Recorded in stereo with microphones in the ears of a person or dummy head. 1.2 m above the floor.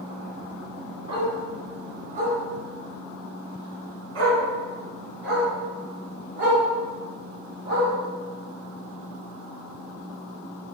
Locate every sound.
1.1 s a dog barking: 25° right (ahead or behind), 3 m; by 7.9 s 45° right (ahead or behind), 5 m